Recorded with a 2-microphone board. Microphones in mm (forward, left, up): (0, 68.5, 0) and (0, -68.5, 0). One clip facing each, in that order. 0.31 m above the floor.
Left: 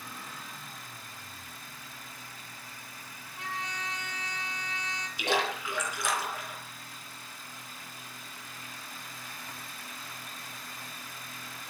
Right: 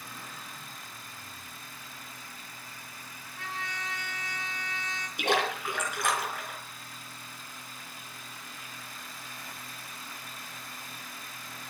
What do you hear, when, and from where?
3.4 s a trumpet: 15° left (ahead or behind), 3.5 m
5.2 s a splash: 55° right (ahead or behind), 3.5 m